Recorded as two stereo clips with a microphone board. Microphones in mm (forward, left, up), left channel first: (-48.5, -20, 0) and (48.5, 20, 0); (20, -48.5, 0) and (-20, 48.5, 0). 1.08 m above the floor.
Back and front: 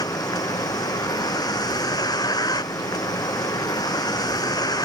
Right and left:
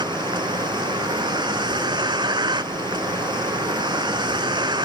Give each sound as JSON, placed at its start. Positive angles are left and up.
{"t": 0.0, "sound": "a vehicle", "azimuth_deg": 155}